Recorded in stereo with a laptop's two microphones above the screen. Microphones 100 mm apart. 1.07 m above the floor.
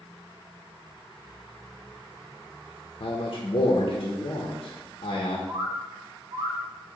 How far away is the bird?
About 0.9 m.